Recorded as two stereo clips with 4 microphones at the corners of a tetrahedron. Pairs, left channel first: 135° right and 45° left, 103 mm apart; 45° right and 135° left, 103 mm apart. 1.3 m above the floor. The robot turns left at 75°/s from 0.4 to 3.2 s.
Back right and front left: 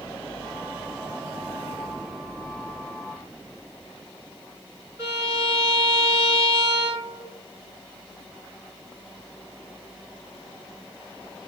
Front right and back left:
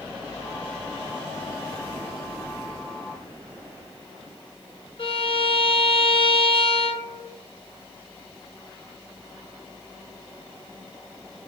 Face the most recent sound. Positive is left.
turn(degrees=-15)